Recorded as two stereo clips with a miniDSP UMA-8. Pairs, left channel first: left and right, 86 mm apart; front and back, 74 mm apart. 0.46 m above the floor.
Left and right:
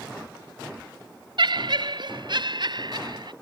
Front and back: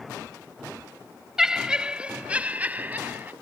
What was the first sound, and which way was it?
Laughter, 100° right.